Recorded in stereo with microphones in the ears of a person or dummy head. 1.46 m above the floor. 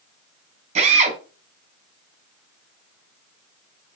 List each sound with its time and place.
0.8 s a drill: 30° right (ahead or behind), 3.5 m